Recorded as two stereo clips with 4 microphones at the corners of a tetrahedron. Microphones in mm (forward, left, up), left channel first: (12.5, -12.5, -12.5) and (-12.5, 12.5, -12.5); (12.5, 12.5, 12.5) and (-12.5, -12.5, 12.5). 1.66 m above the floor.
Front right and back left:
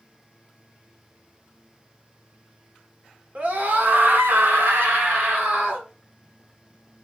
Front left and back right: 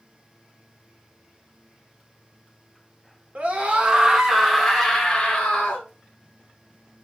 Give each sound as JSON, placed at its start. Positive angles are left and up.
{"t": 3.4, "sound": "a scream", "azimuth_deg": 175, "distance_m": 1.1}